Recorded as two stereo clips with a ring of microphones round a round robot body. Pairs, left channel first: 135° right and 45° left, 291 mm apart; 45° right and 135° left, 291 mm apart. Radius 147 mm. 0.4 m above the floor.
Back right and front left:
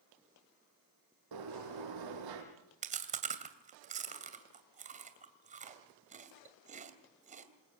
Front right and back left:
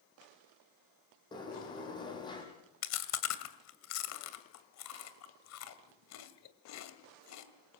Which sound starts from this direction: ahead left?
A sliding door, at 1.3 s.